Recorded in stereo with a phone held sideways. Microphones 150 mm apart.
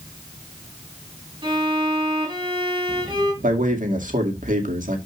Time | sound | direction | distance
1.4 | a violin | 35° right (ahead or behind) | 3 m
3.4 | a man speaking | 60° right (ahead or behind) | 2 m